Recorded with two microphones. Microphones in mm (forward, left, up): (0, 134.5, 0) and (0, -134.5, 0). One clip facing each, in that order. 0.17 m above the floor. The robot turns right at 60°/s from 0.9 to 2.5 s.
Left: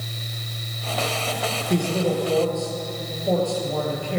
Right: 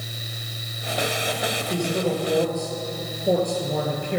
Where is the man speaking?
150° left, 3.5 m; by 4.2 s 160° right, 3.5 m.